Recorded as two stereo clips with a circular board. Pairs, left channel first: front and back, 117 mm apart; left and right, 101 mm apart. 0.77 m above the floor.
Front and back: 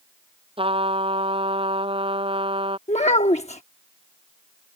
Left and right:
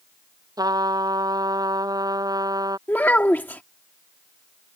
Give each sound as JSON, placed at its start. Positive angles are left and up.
{"t": 0.6, "sound": "a trumpet", "azimuth_deg": -140}
{"t": 2.9, "sound": "a child speaking", "azimuth_deg": 20}